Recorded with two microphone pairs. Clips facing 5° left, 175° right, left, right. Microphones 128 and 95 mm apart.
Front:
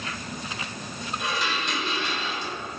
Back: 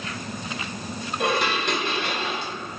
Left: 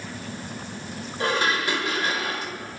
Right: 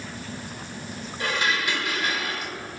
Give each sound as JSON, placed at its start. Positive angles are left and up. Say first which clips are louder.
{"t": 1.2, "sound": "dishes clattering", "louder": "back 7 dB, left 3 dB", "azimuth_deg": 145, "distance_m": 1.3}